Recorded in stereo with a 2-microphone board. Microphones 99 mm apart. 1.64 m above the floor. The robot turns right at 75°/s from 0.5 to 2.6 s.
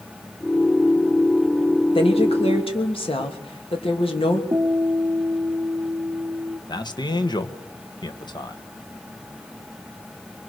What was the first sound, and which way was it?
A woman speaking, 60° left.